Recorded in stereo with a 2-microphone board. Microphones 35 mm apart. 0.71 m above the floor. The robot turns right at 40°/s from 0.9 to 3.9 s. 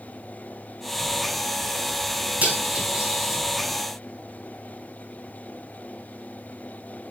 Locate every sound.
2.4 s cutlery clinking: 45° right (ahead or behind), 3.5 m; by 3.4 s 5° right (ahead or behind), 3.5 m